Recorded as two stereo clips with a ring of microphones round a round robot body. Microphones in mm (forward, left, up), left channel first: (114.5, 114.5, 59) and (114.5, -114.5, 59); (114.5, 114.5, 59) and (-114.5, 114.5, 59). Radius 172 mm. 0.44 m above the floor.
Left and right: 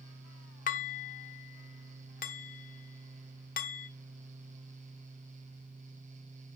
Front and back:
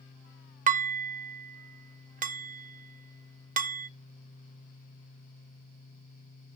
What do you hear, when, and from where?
0.7 s dishes clattering: 130° left, 0.6 m